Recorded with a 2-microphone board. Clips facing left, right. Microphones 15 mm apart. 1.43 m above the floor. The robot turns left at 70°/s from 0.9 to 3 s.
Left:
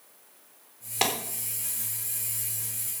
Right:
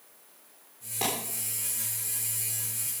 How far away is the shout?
No shout in this recording.